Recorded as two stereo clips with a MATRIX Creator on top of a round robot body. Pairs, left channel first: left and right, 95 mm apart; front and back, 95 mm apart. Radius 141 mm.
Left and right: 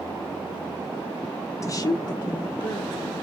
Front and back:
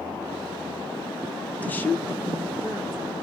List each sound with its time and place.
1.6 s a woman speaking: 60° left, 0.5 m